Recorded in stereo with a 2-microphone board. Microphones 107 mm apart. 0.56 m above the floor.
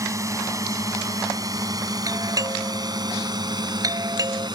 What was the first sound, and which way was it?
A drone, 30° right (ahead or behind).